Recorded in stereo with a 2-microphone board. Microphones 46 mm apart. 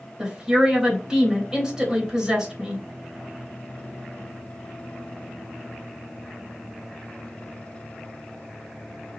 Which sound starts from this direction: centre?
A woman speaking, at 0.2 s.